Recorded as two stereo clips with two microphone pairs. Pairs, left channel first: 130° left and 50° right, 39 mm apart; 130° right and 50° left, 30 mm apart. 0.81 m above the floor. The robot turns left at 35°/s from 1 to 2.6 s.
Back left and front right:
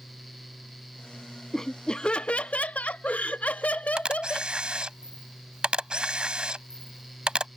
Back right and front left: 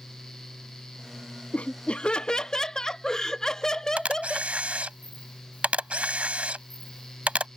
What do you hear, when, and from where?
1.5 s laughter: 160° right; by 4.5 s 165° left
4.0 s a camera shutter: 10° left